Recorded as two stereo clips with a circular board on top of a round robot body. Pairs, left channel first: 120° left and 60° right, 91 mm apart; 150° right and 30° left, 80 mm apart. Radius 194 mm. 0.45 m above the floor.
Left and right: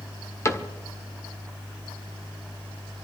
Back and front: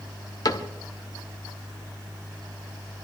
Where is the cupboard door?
Straight behind, 1.7 m.